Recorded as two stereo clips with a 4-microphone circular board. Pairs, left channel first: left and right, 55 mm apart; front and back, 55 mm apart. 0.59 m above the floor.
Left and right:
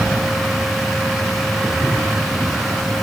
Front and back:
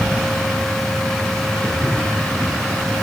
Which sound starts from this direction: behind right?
Footsteps, at 1.6 s.